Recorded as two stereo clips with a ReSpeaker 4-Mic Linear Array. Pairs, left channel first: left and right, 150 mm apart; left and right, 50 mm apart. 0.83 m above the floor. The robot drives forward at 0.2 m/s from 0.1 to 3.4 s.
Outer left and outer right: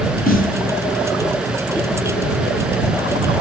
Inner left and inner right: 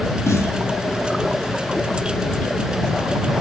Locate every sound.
0.3 s a snare drum: 60° left (ahead or behind), 2.5 m